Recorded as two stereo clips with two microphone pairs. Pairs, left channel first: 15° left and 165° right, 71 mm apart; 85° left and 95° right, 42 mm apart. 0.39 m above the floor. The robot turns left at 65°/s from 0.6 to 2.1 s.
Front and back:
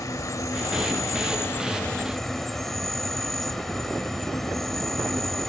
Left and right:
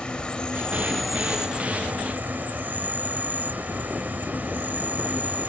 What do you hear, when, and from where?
0.0 s an insect: 25° left; by 5.5 s 70° right